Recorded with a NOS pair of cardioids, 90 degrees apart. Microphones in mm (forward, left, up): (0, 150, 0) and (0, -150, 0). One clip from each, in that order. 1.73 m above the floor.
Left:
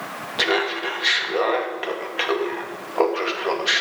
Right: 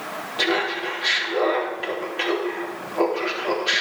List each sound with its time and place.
0.4 s laughter: 35° left, 2.5 m